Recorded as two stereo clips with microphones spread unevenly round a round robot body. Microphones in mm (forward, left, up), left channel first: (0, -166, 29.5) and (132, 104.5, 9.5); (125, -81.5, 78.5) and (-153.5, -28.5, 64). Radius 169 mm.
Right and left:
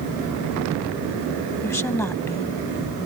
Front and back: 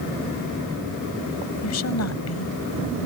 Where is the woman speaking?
35° right.